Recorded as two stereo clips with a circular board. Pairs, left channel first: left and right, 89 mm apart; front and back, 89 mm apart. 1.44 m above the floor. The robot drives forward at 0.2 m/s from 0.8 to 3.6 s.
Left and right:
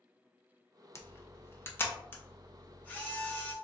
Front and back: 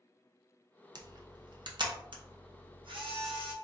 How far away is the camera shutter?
About 0.5 m.